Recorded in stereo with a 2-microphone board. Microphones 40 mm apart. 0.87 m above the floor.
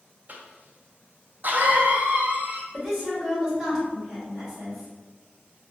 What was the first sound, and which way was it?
A cough, 45° right (ahead or behind).